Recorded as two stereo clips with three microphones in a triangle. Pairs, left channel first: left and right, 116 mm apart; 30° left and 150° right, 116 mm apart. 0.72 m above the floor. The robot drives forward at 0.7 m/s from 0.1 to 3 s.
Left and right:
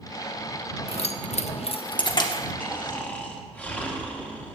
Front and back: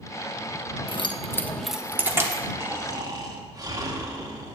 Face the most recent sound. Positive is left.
turn(degrees=165)